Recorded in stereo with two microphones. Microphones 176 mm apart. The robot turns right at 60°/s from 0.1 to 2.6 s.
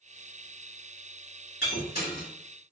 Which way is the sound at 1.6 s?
75° left (ahead or behind).